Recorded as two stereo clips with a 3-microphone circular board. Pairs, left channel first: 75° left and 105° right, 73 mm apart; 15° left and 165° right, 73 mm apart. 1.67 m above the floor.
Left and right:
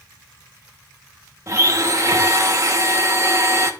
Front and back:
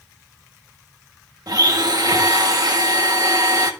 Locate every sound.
1.5 s a blender: 145° right, 1.8 m